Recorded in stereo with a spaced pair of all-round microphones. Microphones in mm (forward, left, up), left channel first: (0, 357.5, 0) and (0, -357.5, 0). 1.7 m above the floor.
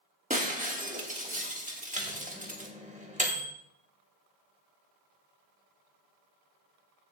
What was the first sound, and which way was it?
Breaking glass, 10° right (ahead or behind).